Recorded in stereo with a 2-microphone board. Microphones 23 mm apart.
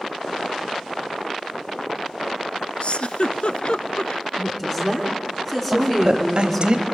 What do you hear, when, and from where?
2.8 s a giggle: 50° left (ahead or behind), 0.5 m
4.4 s a woman speaking: 15° left (ahead or behind), 3.5 m
5.7 s a woman speaking: 40° right (ahead or behind), 1.3 m